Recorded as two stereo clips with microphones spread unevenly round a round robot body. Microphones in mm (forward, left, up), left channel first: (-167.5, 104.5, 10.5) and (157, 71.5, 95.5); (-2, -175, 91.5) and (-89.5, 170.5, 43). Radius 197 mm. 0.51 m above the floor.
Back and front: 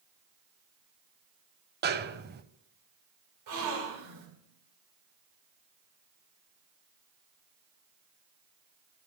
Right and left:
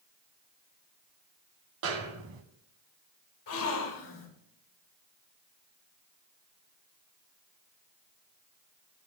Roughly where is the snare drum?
Ahead left.